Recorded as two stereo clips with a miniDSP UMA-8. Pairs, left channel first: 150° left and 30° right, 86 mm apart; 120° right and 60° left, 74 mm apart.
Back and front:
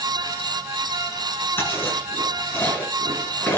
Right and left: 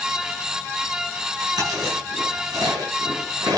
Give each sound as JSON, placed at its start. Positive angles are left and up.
{"t": 1.6, "sound": "chewing", "azimuth_deg": 85, "distance_m": 6.5}